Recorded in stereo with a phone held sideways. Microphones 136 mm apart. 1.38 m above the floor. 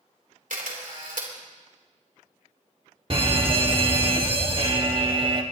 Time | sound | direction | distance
0.5 | a camera shutter | 80° right | 3 m
3.1 | a fire alarm | 40° right (ahead or behind) | 1.4 m